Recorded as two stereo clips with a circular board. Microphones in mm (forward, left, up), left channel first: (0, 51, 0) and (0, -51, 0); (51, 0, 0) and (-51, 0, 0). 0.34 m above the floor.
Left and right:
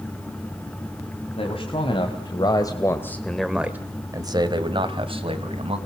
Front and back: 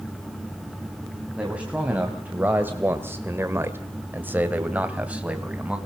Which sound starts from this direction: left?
A man speaking, at 1.4 s.